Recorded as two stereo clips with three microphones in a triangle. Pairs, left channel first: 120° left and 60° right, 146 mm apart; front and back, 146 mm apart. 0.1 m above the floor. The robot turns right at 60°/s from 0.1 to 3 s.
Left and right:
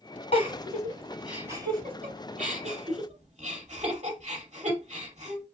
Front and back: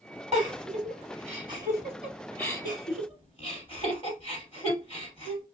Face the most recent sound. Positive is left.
turn(degrees=-40)